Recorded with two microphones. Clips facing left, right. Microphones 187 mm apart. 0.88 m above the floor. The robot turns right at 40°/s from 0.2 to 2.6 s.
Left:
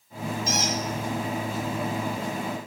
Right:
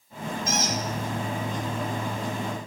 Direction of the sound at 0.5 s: 55° right (ahead or behind).